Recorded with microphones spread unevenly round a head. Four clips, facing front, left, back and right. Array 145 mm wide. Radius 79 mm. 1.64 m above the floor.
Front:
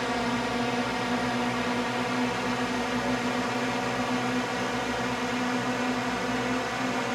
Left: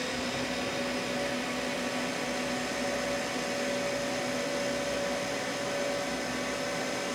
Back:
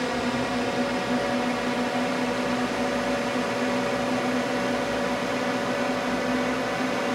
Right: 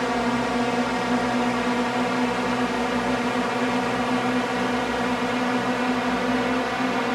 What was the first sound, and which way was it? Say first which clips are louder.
A drone: right 11 dB, back 2 dB; 100° right.